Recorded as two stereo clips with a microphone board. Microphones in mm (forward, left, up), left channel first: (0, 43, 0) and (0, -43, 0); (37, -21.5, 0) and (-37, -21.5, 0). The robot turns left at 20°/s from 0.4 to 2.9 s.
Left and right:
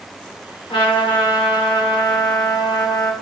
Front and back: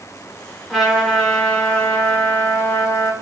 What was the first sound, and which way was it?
A trumpet, 95° left.